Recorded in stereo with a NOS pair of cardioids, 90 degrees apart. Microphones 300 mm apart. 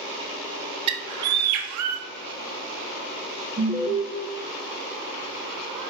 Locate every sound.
0.9 s a bird: 70° right, 0.5 m
3.6 s an alarm: 10° right, 0.6 m